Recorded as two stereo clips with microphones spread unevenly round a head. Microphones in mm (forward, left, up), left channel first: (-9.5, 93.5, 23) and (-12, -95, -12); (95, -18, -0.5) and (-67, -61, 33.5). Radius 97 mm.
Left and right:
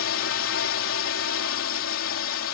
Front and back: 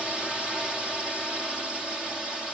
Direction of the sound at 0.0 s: 105° left.